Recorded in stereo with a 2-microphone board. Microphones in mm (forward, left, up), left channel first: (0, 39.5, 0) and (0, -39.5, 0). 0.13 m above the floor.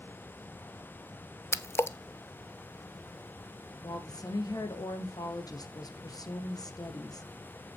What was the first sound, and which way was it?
A splash, 35° left (ahead or behind).